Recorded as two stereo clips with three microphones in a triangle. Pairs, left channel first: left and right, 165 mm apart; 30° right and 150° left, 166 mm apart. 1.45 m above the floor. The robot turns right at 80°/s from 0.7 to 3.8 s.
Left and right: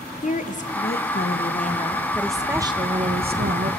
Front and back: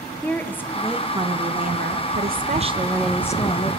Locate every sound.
0.2 s a woman speaking: 50° left, 0.9 m; by 3.7 s 70° right, 0.9 m